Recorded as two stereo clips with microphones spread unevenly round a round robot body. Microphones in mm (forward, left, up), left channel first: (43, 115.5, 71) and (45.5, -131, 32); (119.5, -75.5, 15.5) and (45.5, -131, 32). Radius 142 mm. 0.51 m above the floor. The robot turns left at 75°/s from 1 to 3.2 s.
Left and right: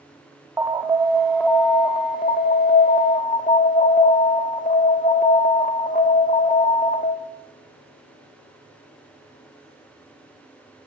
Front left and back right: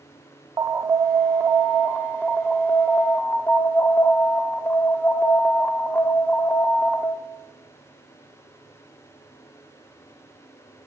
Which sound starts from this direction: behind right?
An alarm, at 0.6 s.